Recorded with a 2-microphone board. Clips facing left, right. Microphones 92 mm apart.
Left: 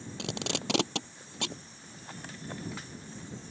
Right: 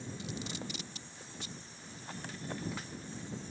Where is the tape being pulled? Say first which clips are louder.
Left 9 dB; 85° left.